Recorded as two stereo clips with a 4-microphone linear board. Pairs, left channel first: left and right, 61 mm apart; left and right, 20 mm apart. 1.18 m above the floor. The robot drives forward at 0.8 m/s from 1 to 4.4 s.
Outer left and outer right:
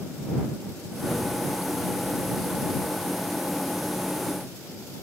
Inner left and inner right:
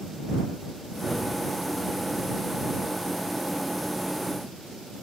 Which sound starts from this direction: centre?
A gunshot, at 1.0 s.